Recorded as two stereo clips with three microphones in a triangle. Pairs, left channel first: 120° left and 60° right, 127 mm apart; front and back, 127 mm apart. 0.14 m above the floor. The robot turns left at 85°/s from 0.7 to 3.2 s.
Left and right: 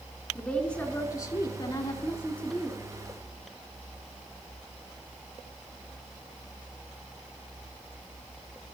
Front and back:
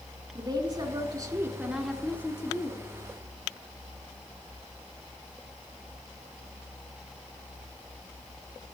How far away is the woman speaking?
About 1.9 m.